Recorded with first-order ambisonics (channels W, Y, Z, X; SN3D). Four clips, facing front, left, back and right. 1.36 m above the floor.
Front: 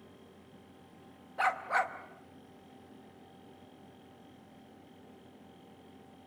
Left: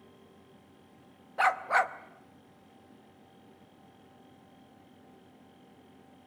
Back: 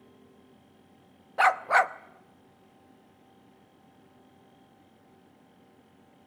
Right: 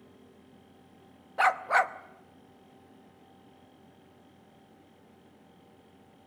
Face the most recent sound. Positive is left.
turn(degrees=-165)